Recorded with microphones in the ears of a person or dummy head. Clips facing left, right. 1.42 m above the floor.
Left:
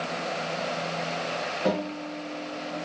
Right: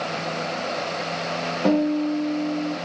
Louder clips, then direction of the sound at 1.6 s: Right 10 dB; 40° right (ahead or behind).